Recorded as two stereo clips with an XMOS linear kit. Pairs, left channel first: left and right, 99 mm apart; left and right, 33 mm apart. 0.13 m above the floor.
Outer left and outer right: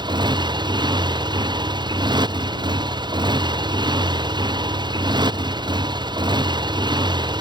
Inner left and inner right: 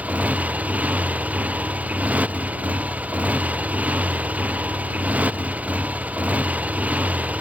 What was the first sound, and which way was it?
A motorcycle, 50° right (ahead or behind).